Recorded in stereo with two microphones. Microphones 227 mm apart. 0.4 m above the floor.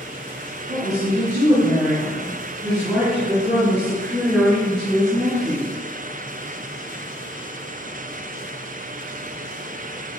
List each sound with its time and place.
0.7 s a woman speaking: 45° right (ahead or behind), 2 m; by 5.7 s 20° right (ahead or behind), 8 m